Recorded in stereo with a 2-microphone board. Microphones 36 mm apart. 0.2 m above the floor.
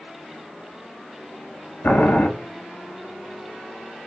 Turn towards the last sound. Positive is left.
turn(degrees=70)  # may be behind; listen again after turning